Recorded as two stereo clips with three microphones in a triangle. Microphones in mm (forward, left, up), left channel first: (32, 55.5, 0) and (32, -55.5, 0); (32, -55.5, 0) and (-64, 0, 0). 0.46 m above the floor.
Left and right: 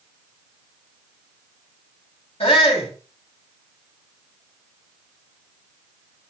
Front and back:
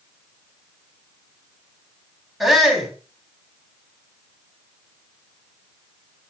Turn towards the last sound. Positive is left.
turn(degrees=60)